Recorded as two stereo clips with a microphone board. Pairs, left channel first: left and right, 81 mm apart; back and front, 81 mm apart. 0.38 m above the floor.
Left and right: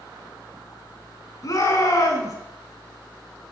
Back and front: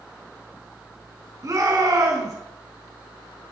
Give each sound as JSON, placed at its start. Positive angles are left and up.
{"t": 1.4, "sound": "a shout", "azimuth_deg": 45, "distance_m": 4.5}